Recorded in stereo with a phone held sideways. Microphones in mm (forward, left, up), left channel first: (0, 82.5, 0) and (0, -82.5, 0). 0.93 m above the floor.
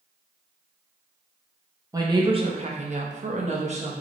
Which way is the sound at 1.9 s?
20° right (ahead or behind).